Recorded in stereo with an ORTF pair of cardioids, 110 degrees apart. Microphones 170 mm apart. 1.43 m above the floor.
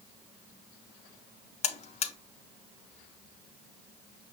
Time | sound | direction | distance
1.6 | a buzzer | 40° left | 0.5 m